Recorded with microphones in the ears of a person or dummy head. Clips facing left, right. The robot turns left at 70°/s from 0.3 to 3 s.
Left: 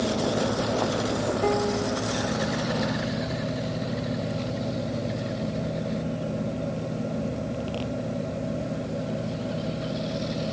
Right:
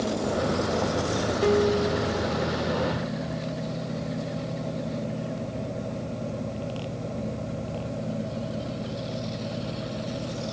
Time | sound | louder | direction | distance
1.4 | a piano | right 6 dB | 60° right | 1.3 m